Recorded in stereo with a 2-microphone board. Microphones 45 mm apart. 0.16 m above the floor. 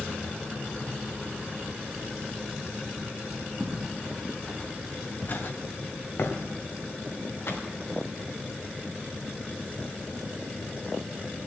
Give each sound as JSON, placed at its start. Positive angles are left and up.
{"t": 3.6, "sound": "footsteps", "side_deg": -20, "distance_m": 1.5}